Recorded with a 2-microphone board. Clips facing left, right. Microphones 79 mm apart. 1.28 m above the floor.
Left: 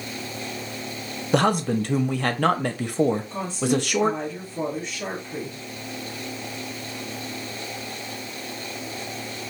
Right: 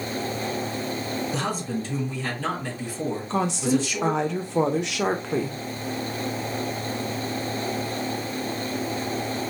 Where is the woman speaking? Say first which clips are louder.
Right 1 dB; 80° right, 0.7 m.